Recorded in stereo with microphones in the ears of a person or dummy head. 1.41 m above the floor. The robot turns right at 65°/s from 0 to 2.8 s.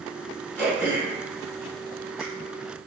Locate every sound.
0.6 s throat clearing: 10° left (ahead or behind), 1.3 m; by 2.2 s 65° right (ahead or behind), 1.3 m